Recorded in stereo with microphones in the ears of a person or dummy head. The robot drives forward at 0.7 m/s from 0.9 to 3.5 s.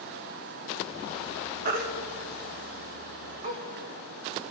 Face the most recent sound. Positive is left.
turn(degrees=-35)  # may be behind; listen again after turning